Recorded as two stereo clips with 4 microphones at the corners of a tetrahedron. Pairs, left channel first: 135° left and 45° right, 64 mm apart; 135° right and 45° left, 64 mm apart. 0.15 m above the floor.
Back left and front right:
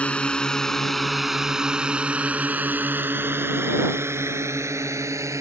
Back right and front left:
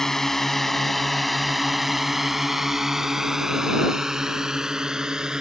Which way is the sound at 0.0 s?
155° left.